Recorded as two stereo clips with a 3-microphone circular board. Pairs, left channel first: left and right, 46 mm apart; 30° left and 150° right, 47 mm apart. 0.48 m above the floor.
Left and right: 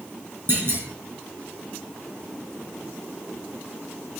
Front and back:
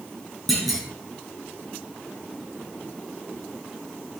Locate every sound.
0.5 s a clunk: 55° right, 3.5 m